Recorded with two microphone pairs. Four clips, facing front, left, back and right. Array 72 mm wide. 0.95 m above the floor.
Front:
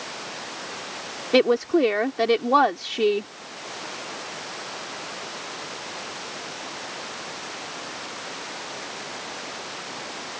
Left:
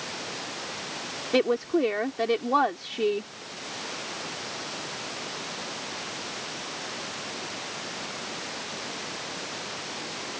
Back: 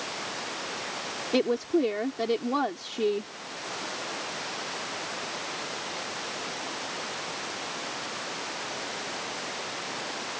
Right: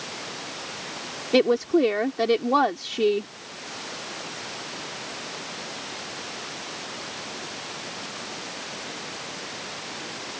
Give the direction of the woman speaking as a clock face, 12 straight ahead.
12 o'clock.